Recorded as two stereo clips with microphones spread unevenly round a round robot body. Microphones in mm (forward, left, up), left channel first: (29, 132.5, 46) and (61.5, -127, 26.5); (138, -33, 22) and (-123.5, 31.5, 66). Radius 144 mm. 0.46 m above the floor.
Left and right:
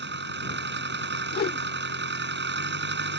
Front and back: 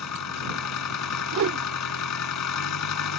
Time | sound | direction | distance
0.0 | an engine running | 35° right | ?
1.3 | a whoosh | 145° left | ?